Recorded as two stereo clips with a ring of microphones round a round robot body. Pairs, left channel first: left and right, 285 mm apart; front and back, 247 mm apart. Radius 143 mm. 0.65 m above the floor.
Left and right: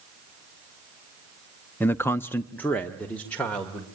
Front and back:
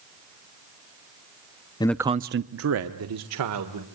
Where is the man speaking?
20° left, 0.5 m; by 3.9 s 175° left, 2 m.